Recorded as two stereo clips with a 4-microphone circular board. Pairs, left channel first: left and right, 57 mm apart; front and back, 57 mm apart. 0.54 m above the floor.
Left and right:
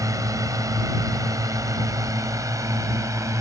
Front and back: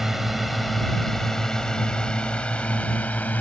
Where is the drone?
95° right; by 3.4 s 65° right.